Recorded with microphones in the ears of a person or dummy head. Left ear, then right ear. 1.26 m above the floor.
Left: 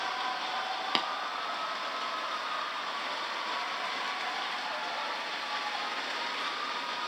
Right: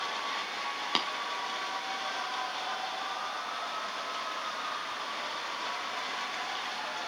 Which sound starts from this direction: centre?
Tapping, at 0.9 s.